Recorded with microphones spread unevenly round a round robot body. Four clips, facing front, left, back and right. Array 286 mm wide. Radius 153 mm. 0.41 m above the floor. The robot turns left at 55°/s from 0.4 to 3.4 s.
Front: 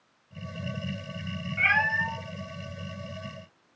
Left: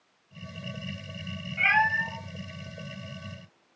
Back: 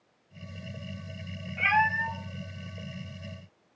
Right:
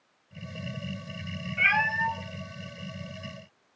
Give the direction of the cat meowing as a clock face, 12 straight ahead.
6 o'clock.